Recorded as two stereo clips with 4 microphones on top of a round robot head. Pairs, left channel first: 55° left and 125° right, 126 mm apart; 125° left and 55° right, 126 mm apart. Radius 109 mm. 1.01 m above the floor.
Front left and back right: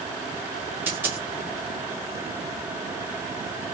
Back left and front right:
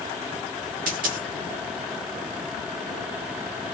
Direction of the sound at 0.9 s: 50° right.